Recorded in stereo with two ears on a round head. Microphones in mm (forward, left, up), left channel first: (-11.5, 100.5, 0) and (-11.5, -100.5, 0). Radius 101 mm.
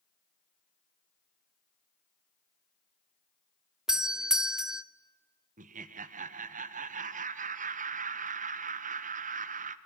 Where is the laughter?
35° right (ahead or behind), 0.7 m.